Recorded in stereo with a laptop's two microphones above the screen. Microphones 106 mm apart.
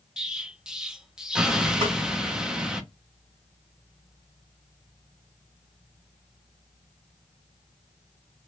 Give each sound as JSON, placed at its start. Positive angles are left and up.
{"t": 0.2, "sound": "an explosion", "side_deg": -5, "distance_m": 0.6}
{"t": 1.8, "sound": "a snare drum", "side_deg": -55, "distance_m": 1.8}